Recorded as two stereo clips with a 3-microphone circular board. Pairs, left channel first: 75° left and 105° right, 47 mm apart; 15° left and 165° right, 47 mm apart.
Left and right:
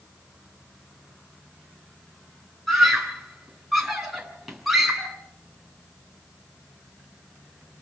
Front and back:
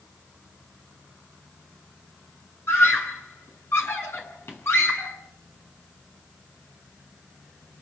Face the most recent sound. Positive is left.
turn(degrees=-20)